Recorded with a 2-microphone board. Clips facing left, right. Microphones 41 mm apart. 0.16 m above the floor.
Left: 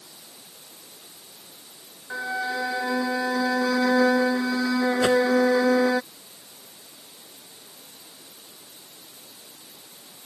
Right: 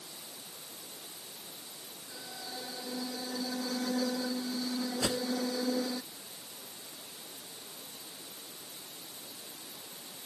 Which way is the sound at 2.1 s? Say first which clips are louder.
Left 18 dB; 75° left (ahead or behind).